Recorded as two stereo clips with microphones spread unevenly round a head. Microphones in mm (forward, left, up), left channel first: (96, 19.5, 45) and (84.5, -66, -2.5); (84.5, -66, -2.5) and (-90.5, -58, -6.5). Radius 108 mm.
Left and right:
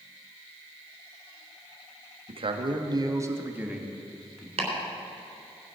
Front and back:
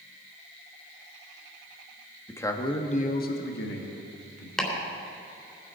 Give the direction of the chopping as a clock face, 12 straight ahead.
3 o'clock.